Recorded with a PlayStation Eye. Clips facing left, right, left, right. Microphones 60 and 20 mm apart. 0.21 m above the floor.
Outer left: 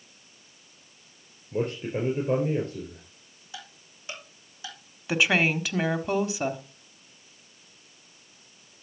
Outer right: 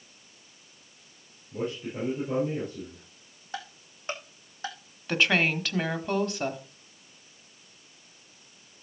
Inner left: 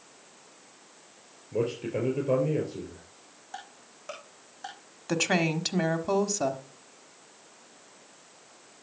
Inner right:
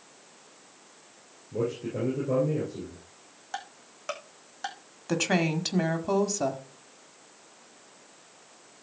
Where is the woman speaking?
5° left (ahead or behind), 1.2 m.